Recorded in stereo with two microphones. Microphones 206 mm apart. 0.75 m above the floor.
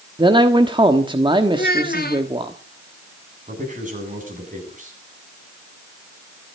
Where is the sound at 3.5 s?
40° right (ahead or behind), 8 m.